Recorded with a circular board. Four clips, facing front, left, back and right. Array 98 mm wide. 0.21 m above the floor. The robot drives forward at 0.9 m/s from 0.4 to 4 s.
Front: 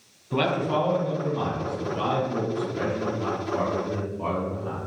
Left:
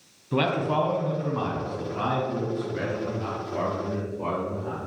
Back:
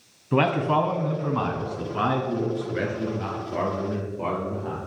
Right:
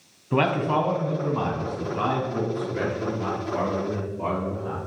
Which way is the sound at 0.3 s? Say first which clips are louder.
Right 2 dB, back 3 dB; 145° right.